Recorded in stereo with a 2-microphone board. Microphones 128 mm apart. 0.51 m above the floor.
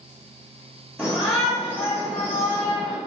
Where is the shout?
5° left (ahead or behind), 0.9 m.